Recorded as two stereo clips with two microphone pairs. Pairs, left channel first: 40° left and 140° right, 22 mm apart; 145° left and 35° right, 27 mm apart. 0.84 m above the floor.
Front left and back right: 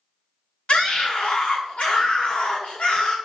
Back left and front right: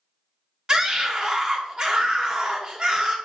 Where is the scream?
20° left, 2 m.